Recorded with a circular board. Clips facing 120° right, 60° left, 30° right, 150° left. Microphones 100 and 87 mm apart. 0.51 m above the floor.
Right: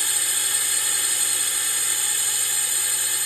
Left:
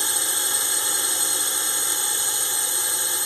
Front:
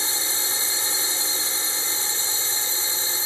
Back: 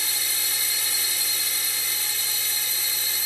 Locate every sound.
0.0 s a drone: 10° left